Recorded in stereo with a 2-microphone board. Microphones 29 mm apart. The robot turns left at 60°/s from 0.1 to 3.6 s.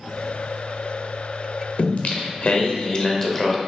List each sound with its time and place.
1.8 s singing: 110° left, 0.9 m; by 3.6 s straight ahead, 0.9 m